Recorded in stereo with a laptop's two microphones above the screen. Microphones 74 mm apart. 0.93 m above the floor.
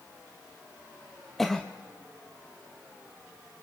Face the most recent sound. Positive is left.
turn(degrees=5)  # may be behind; listen again after turning